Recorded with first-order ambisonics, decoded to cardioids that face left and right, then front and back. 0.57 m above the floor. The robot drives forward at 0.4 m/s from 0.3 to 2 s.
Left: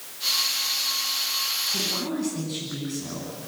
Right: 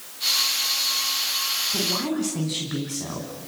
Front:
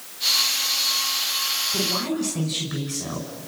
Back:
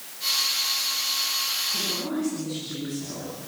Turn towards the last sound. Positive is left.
turn(degrees=-60)